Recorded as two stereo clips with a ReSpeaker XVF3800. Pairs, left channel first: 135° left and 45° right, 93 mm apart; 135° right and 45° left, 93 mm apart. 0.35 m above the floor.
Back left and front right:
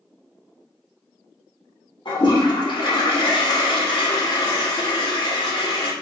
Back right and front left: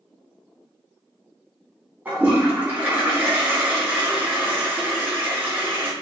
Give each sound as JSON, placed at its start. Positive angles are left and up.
{"t": 2.0, "sound": "a toilet flushing", "azimuth_deg": 115, "distance_m": 1.7}